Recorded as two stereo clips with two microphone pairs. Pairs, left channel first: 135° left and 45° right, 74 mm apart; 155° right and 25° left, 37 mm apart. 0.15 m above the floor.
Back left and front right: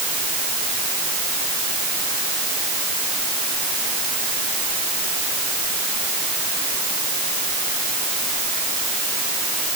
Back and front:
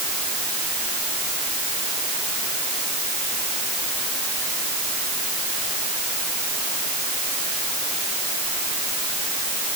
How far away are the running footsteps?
No running footsteps in this recording.